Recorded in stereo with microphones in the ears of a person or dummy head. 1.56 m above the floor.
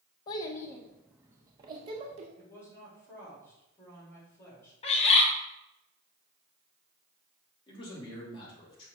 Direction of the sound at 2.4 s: 15° left (ahead or behind).